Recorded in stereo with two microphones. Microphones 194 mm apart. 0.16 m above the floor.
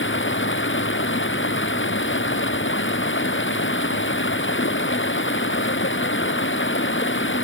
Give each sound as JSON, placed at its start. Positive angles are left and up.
{"t": 0.0, "sound": "running water", "side_deg": 85}